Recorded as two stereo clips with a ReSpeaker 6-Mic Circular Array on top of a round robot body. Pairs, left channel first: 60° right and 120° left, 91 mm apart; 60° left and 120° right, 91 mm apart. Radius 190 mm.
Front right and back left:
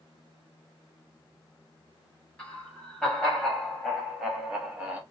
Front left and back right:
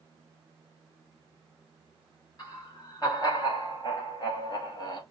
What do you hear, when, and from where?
2.4 s laughter: 15° left, 2.5 m; by 5.0 s 45° left, 1.5 m